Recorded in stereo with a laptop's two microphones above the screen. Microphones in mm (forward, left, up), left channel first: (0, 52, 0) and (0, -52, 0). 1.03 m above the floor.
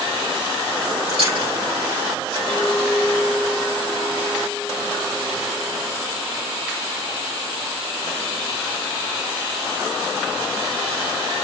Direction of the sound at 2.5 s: 15° left (ahead or behind).